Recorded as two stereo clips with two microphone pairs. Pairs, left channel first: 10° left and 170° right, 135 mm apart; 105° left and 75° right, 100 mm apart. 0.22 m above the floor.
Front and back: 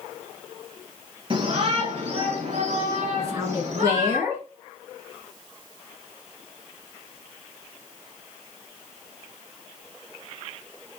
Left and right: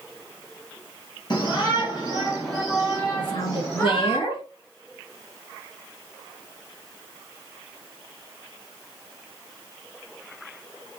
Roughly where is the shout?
Behind left.